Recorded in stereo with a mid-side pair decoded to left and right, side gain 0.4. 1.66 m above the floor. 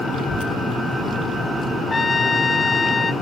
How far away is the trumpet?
About 0.8 m.